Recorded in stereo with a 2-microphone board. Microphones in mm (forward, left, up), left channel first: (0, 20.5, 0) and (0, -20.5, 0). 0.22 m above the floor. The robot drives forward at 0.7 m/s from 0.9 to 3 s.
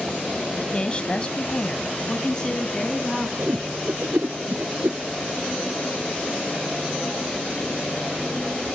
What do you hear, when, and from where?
0.6 s a woman speaking: 30° left (ahead or behind), 1.2 m; by 3.3 s 20° left (ahead or behind), 1.9 m
3.4 s a whoosh: 70° right (ahead or behind), 0.6 m